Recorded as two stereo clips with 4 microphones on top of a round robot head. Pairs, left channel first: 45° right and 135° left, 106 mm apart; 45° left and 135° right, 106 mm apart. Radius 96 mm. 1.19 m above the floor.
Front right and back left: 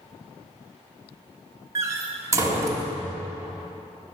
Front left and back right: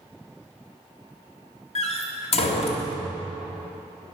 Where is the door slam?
70° left, 1.7 m.